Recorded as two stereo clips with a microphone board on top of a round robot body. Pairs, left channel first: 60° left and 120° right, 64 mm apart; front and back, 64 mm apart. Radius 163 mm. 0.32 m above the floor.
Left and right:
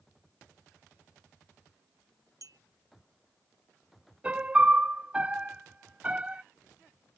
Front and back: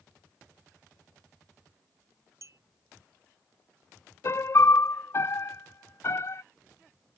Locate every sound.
2.4 s a clink: 140° right
4.2 s a piano: 50° right